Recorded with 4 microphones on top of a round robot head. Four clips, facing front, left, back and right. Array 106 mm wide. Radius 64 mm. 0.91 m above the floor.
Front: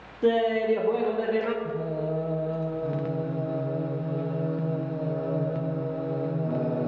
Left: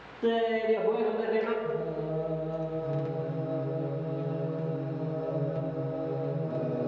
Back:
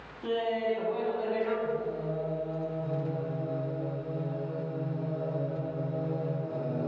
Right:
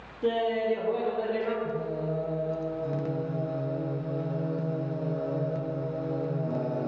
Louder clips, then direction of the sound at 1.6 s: Even, front 3 dB; 20° right.